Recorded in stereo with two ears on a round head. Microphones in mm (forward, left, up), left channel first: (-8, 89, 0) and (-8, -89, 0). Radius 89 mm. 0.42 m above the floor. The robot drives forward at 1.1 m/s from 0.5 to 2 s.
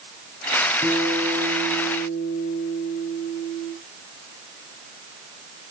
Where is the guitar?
10° left (ahead or behind), 5.5 m.